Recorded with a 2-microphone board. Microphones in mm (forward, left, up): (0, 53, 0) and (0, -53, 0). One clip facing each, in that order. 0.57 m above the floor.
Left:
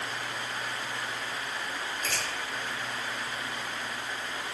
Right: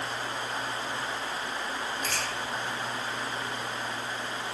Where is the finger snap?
45° right (ahead or behind), 1.5 m.